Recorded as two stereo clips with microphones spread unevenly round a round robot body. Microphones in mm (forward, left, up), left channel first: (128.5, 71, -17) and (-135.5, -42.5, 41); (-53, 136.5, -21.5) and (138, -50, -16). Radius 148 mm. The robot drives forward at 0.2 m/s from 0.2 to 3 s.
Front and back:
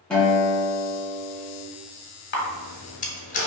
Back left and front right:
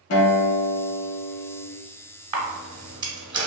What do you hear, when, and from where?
0.1 s a guitar: 105° left, 0.6 m; by 1.6 s 130° left, 0.8 m
2.3 s a camera shutter: 15° left, 0.8 m; by 3.5 s 20° left, 0.7 m